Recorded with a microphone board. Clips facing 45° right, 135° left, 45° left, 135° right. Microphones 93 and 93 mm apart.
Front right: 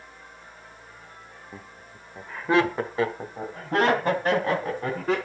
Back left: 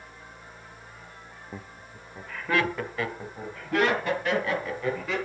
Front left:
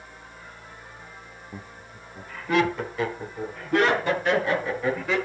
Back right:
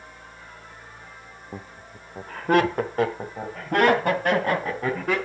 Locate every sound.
1.5 s laughter: 160° right, 0.8 m; by 5.2 s 95° right, 4 m